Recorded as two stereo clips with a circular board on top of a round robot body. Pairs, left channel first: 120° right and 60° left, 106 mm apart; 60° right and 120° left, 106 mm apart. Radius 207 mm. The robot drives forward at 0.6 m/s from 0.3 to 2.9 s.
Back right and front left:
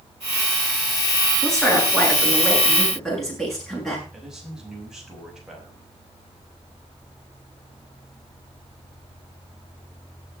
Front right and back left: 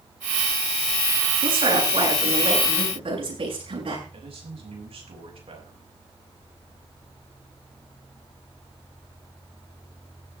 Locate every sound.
1.4 s a woman speaking: 150° left, 7.5 m
4.1 s a man speaking: 145° left, 6 m